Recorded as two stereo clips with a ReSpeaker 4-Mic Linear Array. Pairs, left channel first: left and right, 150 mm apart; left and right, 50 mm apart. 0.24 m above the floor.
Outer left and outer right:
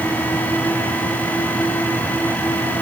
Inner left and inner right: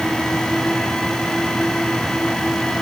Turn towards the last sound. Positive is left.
No sound to turn to.